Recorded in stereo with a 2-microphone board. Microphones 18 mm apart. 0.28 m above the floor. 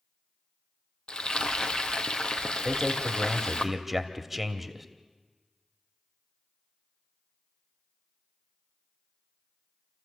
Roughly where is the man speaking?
Centre.